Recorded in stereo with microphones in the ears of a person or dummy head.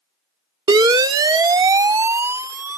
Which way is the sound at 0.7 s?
30° right (ahead or behind).